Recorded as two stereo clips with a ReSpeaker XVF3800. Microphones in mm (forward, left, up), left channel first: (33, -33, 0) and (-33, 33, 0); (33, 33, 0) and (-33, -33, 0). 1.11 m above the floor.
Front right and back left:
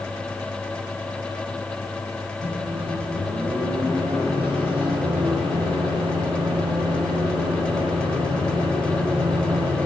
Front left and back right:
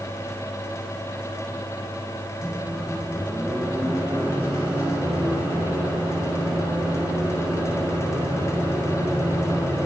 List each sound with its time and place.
2.4 s a microwave: 150° left, 4 m